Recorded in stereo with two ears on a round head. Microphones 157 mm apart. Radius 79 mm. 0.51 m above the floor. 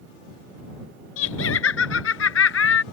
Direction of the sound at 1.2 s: 85° left.